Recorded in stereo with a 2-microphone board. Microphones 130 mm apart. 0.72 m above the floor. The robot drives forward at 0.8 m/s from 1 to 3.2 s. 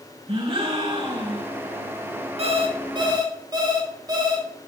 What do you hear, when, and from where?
0.3 s a gasp: 45° right (ahead or behind), 3.5 m; by 1.5 s 50° right (ahead or behind), 3 m
2.4 s an alarm clock: 50° right (ahead or behind), 1.1 m; by 4.5 s 30° right (ahead or behind), 1.6 m